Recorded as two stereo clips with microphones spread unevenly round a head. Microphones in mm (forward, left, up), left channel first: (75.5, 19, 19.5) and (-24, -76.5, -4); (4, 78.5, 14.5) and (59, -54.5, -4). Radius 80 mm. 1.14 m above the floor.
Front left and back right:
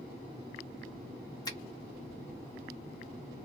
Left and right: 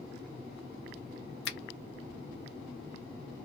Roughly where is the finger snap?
Behind left.